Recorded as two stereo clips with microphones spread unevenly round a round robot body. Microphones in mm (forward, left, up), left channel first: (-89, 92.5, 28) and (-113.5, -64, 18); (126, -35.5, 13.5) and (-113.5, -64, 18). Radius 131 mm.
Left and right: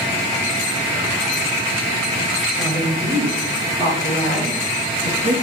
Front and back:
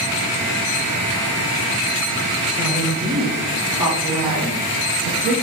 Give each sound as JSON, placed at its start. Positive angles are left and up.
{"t": 2.6, "sound": "a woman speaking", "azimuth_deg": -100, "distance_m": 4.5}